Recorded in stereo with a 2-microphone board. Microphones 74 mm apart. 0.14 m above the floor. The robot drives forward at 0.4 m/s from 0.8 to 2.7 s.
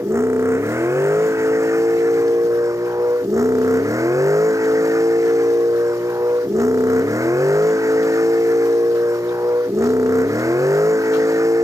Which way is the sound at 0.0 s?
40° right (ahead or behind).